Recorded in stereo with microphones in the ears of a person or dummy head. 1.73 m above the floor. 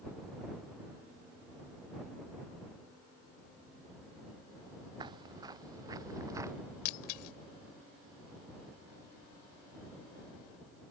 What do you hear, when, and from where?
5.0 s footsteps: 25° right (ahead or behind); by 6.5 s 20° right (ahead or behind)
6.8 s breaking glass: 50° left (ahead or behind)